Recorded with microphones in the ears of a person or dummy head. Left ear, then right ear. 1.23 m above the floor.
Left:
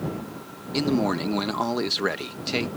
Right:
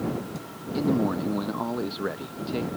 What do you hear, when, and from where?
0.7 s a man speaking: 70° left (ahead or behind)